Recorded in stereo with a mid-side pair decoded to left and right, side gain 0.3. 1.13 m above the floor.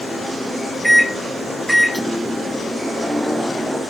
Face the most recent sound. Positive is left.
turn(degrees=-10)